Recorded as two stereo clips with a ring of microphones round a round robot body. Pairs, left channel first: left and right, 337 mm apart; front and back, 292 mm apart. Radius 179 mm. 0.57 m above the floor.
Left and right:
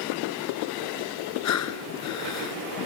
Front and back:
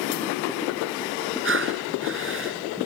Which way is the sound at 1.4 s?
135° left.